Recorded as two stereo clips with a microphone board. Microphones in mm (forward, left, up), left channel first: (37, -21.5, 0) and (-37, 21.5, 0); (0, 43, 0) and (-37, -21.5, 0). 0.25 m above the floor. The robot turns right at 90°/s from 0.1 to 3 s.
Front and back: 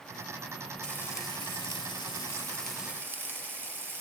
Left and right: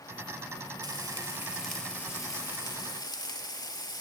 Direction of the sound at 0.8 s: 110° right.